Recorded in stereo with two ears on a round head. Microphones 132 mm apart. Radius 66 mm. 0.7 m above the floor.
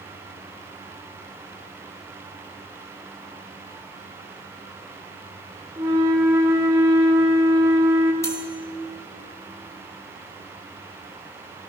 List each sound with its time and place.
5.8 s a flute: 20° right (ahead or behind), 1.7 m
8.2 s cutlery clinking: 20° left (ahead or behind), 3 m